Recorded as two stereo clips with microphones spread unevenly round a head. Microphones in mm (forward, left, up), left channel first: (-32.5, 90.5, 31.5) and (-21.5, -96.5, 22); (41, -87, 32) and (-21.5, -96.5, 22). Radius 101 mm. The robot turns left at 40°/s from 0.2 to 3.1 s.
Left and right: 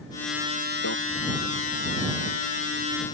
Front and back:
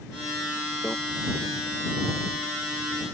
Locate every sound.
0.8 s a microwave: 90° left; by 0.9 s 85° left